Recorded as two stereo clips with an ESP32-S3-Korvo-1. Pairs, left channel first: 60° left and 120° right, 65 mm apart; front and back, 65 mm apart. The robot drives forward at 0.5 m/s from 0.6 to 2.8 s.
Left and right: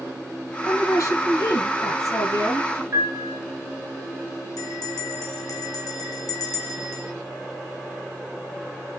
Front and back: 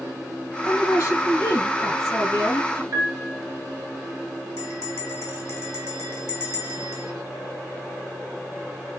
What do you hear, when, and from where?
0.7 s a woman speaking: 35° left, 3.5 m; by 2.8 s 50° left, 2.5 m
2.9 s a piano: 160° right, 1.4 m
4.6 s a bell: 50° left, 2 m